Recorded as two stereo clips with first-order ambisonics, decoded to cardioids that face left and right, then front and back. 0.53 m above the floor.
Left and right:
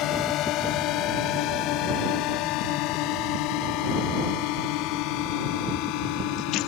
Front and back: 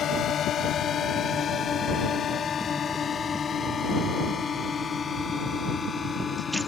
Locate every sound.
0.0 s a drone: 55° left; by 6.7 s 75° left